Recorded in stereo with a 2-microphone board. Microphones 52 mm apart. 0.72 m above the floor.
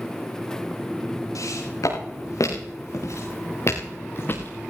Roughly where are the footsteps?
Left.